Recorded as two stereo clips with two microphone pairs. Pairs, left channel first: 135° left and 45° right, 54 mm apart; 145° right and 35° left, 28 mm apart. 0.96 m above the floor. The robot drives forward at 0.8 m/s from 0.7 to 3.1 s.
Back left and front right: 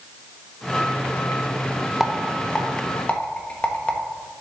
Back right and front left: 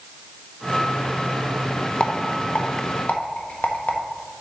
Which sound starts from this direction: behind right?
A rattle, at 2.0 s.